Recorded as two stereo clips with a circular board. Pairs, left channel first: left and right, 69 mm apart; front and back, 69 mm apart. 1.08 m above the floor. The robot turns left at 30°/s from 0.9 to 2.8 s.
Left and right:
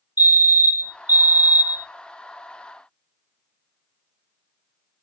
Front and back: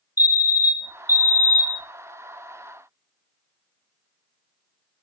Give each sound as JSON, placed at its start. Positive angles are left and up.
{"t": 0.2, "sound": "a fire alarm", "azimuth_deg": -140, "distance_m": 1.8}